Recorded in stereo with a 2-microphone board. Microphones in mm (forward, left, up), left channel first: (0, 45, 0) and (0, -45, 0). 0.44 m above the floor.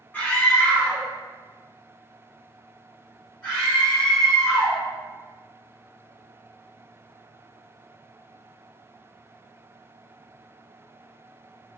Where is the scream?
20° left (ahead or behind), 1.4 m; by 4.8 s 5° left (ahead or behind), 2 m.